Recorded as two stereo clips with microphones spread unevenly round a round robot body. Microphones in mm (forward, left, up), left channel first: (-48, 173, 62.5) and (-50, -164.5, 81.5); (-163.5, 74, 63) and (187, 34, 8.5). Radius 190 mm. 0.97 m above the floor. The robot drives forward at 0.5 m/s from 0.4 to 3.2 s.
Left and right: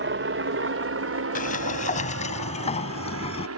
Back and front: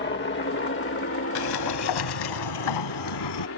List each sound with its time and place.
0.0 s a helicopter: 130° right
1.4 s a sliding door: 155° left; by 3.5 s 165° left